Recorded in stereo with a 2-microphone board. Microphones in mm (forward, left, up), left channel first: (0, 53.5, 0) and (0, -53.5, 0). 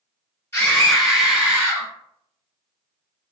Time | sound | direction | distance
0.5 | a scream | 20° left (ahead or behind) | 1.8 m